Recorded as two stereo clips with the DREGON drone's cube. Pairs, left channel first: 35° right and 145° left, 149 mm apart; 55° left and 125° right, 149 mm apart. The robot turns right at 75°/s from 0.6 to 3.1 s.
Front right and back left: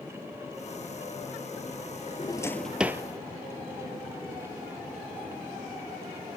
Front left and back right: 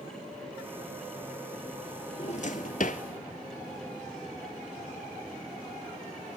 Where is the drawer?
15° left, 0.5 m; by 3.0 s 80° left, 0.5 m.